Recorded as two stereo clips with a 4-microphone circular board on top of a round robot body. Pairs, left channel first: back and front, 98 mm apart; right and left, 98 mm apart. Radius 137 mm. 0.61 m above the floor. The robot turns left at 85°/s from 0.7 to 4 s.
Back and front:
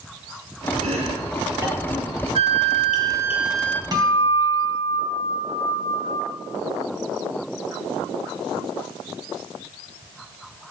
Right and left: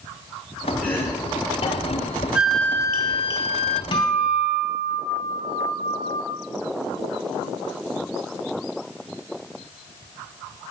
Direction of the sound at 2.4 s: 10° left.